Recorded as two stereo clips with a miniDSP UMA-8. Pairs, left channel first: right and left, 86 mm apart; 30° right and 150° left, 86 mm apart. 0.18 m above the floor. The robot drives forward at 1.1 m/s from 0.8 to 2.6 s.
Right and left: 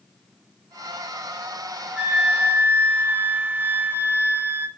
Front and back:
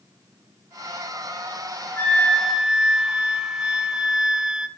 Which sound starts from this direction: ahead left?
A flute, at 2.0 s.